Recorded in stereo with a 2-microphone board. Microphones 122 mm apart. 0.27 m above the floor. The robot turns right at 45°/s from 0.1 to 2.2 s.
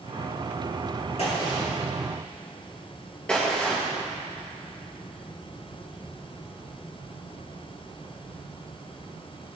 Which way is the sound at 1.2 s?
55° left (ahead or behind).